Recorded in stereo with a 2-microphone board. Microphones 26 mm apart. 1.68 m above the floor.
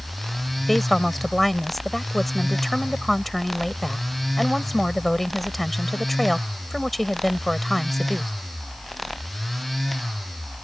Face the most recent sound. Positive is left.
turn(degrees=0)  # may be behind; listen again after turning